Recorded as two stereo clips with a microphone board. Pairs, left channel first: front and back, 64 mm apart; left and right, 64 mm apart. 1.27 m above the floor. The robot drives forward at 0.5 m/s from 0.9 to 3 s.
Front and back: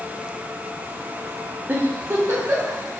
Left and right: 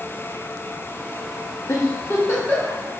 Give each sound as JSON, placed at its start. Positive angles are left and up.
{"t": 1.7, "sound": "a giggle", "azimuth_deg": 125, "distance_m": 0.6}